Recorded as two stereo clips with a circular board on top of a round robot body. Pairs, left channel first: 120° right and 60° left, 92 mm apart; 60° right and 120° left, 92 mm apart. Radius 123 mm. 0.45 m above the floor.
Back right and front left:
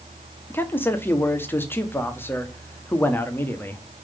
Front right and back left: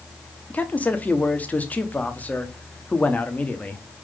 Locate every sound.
0.5 s a man speaking: 105° right, 1.2 m